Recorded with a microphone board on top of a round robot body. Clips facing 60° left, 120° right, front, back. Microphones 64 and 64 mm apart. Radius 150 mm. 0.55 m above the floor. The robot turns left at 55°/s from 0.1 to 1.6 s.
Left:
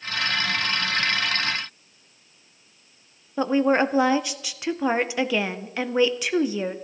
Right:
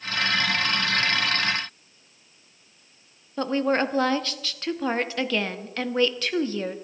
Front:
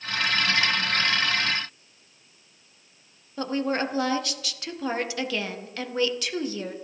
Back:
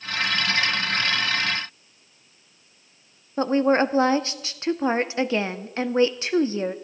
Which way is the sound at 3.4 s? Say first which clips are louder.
Left 3 dB, back 7 dB; 130° left.